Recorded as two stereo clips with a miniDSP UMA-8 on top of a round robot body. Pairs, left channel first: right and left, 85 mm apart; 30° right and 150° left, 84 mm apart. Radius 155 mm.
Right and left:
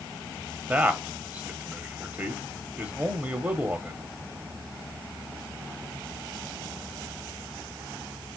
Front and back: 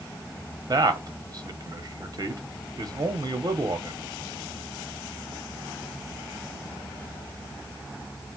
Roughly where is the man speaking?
Behind left.